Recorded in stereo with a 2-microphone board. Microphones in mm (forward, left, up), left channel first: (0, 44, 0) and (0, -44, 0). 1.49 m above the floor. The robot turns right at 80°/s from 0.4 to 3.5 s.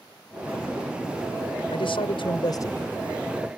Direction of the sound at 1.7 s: 65° left.